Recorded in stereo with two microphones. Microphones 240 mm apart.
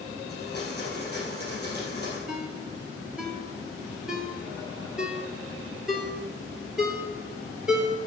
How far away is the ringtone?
About 1.4 m.